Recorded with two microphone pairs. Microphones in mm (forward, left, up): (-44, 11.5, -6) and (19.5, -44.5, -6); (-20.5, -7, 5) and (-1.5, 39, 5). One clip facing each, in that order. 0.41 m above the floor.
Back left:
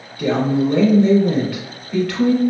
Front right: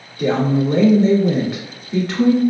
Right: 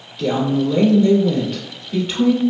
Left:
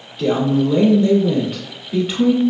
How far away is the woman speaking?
About 1.2 m.